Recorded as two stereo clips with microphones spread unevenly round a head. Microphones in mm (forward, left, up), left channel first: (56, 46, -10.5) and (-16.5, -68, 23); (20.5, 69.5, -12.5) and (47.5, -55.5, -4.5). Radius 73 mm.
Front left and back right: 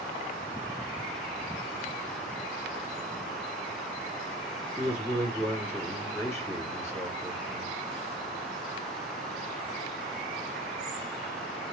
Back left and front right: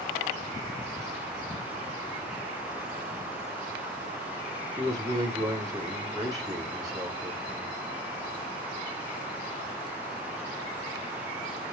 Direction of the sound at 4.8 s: 15° right.